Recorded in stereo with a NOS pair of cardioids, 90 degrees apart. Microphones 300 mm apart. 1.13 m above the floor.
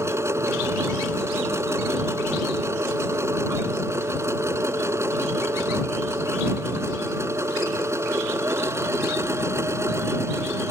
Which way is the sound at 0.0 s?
10° right.